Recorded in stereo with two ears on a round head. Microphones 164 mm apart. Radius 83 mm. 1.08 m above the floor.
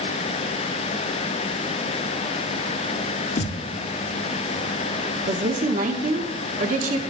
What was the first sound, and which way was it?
A thud, 45° left (ahead or behind).